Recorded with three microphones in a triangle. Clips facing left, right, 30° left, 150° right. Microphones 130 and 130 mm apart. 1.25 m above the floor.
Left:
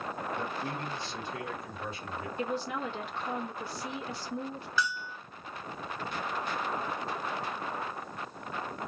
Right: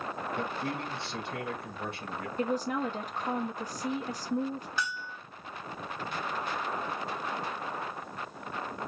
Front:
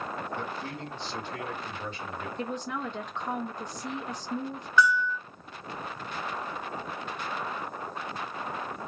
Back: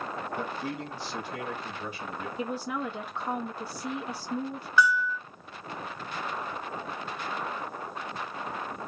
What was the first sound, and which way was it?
A man speaking, 70° right.